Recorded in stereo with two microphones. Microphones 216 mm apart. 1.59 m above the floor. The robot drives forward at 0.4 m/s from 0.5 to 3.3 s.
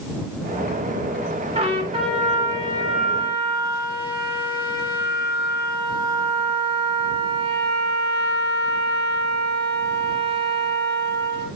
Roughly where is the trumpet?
Right.